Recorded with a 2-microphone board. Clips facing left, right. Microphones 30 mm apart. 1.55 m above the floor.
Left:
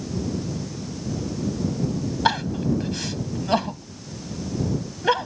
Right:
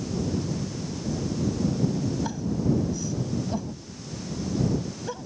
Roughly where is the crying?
Left.